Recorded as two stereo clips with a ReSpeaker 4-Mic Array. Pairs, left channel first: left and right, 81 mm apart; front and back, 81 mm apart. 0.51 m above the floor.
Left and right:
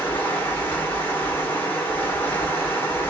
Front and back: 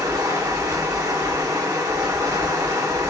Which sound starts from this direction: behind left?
Running water, at 0.0 s.